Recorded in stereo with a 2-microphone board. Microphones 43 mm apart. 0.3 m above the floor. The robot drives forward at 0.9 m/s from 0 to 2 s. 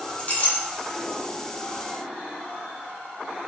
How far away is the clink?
About 1.3 m.